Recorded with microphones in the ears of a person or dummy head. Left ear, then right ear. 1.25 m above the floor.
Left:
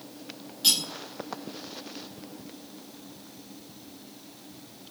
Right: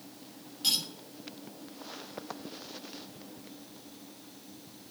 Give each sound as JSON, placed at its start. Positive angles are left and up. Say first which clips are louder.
{"t": 0.6, "sound": "cutlery clinking", "louder": "left 5 dB", "side_deg": 10, "distance_m": 4.5}